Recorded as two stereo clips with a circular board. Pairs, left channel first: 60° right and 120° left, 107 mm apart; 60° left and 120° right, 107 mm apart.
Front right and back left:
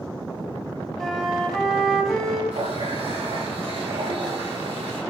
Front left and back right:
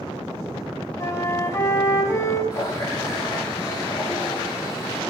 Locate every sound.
1.0 s a flute: 25° left, 1.8 m
2.5 s a running tap: 115° left, 6 m